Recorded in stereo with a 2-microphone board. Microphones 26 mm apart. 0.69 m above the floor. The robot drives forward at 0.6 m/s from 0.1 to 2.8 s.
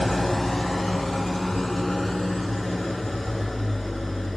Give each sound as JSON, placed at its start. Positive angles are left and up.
{"t": 0.0, "sound": "an engine running", "side_deg": 20, "distance_m": 1.0}